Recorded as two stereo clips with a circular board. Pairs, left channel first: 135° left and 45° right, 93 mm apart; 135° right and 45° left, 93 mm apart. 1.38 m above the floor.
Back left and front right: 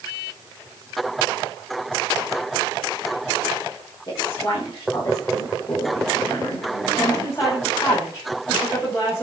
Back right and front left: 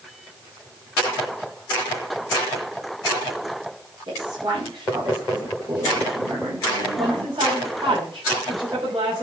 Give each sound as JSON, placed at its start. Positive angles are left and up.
{"t": 4.1, "sound": "a woman speaking", "azimuth_deg": 85, "distance_m": 6.0}
{"t": 7.0, "sound": "a woman speaking", "azimuth_deg": 70, "distance_m": 6.5}